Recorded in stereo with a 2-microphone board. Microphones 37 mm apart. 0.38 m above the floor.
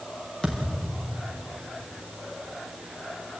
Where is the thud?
20° left (ahead or behind), 5.5 m.